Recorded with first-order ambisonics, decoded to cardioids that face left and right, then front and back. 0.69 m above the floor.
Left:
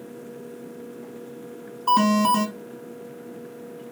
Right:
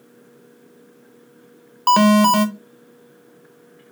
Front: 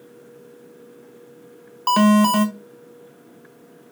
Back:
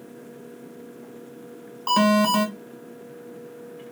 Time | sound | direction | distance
1.9 | an alarm | 75° right | 1.8 m